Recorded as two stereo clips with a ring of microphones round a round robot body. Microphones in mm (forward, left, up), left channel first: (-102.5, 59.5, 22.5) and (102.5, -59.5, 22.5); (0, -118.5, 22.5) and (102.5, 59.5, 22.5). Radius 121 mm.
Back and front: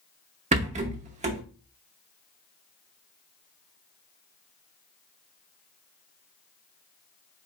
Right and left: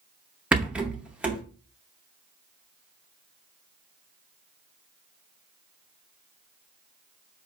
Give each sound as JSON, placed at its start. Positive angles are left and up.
{"t": 0.5, "sound": "a rattle", "azimuth_deg": -20, "distance_m": 0.9}